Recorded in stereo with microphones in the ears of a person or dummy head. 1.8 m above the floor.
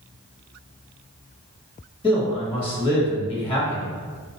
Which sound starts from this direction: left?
A man speaking, at 2.0 s.